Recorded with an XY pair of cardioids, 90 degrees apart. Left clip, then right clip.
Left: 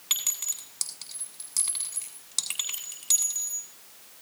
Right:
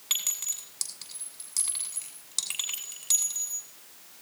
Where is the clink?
10° left, 8 m.